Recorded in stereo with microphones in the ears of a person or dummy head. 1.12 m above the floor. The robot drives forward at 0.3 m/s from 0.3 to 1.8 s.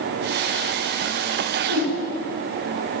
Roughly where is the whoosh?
Right.